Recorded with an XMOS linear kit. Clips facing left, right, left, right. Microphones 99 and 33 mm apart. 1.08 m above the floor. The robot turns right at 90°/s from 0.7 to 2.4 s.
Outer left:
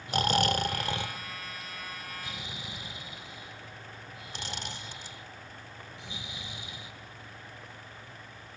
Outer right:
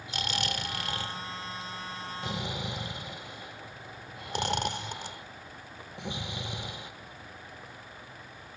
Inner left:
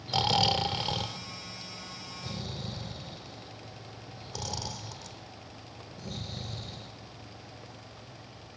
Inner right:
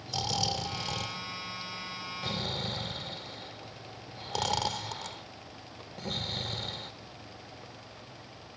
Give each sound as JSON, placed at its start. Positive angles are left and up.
{"t": 0.1, "sound": "snoring", "side_deg": 45, "distance_m": 1.3}